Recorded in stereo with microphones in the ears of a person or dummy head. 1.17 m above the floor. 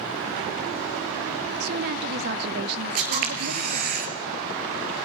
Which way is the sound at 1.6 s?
60° right (ahead or behind).